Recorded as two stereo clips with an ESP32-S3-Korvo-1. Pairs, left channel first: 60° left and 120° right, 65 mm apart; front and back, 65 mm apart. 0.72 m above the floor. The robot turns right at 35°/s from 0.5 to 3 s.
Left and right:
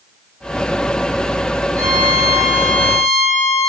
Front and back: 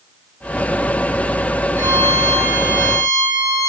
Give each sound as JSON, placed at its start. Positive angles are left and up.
{"t": 1.8, "sound": "a violin", "azimuth_deg": -135, "distance_m": 4.0}